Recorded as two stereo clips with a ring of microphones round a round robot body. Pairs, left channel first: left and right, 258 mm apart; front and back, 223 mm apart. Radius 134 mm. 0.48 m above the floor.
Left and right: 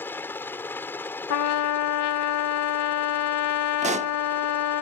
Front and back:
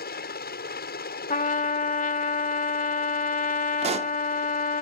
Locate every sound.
0.0 s a helicopter: 10° left
1.3 s a trumpet: 60° left
3.8 s a pop: 135° right